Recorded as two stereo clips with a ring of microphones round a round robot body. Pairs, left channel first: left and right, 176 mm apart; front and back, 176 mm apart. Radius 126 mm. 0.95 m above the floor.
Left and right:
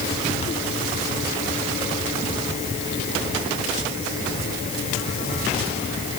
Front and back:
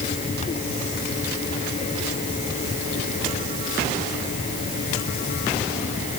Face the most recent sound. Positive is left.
No sound to turn to.